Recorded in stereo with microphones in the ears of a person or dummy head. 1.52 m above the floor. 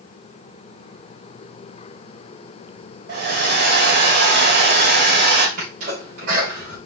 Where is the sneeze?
50° right (ahead or behind), 2.5 m.